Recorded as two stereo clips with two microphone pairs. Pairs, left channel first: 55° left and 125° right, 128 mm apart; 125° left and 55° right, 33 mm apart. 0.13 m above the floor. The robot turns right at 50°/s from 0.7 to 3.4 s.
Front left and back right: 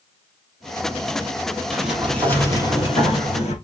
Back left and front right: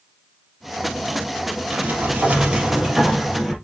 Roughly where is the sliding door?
Ahead right.